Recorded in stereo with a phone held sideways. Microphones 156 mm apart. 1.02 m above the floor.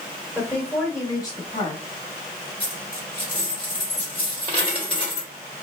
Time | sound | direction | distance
0.3 | a woman speaking | 10° left (ahead or behind) | 2 m
2.6 | a dropped coin | 30° left (ahead or behind) | 1.5 m